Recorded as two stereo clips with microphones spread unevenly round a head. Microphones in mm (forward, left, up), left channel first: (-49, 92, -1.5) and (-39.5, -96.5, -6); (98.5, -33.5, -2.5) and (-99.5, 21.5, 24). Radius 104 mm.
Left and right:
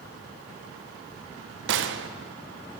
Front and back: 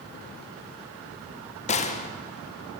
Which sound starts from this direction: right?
A gunshot, at 1.7 s.